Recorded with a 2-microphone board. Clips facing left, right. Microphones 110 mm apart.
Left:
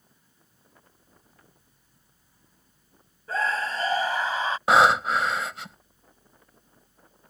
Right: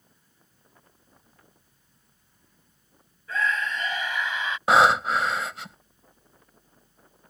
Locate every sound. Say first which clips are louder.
3.3 s a scream: even; 35° left (ahead or behind)
4.7 s breathing: even; centre (ahead or behind)